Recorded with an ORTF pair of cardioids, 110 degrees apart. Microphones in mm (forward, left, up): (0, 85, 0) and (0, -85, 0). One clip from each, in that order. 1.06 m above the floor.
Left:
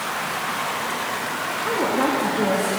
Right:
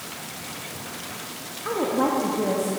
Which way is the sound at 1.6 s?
Straight ahead.